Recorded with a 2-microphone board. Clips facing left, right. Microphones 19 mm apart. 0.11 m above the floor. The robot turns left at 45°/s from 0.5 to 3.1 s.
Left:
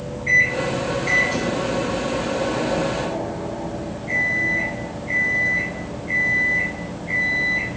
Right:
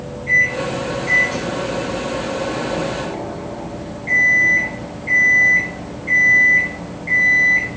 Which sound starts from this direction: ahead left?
A microwave, at 0.3 s.